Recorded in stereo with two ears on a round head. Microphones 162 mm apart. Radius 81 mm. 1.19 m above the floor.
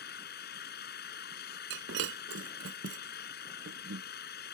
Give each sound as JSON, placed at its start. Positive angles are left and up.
{"t": 0.0, "sound": "an engine running", "side_deg": 60}
{"t": 1.7, "sound": "breaking glass", "side_deg": -75}